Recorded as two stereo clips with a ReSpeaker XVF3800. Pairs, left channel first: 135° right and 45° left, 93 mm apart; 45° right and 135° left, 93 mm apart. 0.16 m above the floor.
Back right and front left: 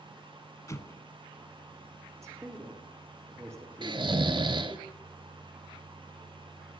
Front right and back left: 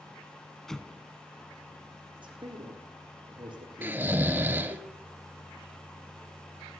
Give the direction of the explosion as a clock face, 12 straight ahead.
4 o'clock.